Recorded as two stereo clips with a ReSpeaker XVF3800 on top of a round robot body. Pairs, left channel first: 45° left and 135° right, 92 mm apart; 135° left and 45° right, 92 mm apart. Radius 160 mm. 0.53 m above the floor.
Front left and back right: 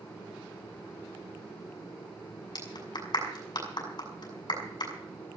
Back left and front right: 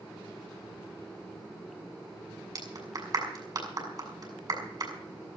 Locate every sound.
2.5 s a clap: 5° left, 6 m